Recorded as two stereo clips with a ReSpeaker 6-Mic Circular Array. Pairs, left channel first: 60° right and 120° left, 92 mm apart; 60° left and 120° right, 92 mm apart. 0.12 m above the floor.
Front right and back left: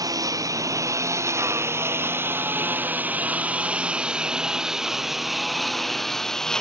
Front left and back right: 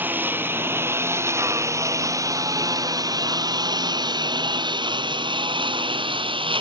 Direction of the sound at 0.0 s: 170° left.